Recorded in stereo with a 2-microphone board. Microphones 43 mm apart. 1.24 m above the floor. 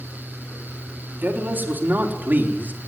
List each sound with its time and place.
1.2 s a man speaking: 50° right (ahead or behind), 4.5 m; by 2.8 s 45° right (ahead or behind), 3.5 m